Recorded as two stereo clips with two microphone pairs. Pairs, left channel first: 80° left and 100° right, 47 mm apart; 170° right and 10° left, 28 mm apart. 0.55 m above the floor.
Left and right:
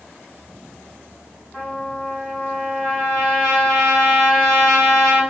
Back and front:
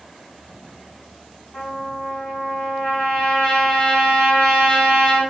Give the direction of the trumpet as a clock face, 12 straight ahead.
7 o'clock.